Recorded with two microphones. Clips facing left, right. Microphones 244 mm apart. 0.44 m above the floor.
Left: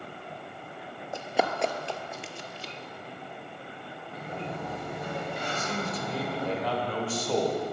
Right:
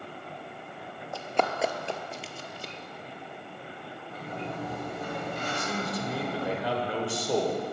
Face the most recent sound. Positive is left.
turn(degrees=-15)  # may be behind; listen again after turning